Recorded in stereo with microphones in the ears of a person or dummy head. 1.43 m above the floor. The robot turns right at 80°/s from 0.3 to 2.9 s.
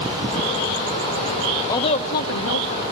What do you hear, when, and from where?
1.7 s a woman speaking: 20° left, 1.5 m; by 2.8 s 110° left, 1.5 m